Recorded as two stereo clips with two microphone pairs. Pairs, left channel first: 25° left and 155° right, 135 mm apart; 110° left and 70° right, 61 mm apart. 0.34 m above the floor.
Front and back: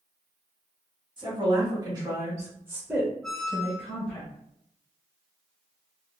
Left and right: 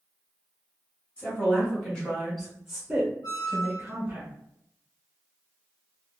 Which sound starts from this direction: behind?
A woman speaking, at 1.2 s.